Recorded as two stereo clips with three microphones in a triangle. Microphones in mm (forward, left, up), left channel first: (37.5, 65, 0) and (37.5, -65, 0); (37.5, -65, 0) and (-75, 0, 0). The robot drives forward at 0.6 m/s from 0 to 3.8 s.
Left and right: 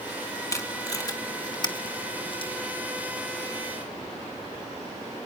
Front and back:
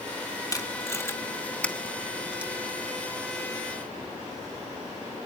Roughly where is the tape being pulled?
Ahead left.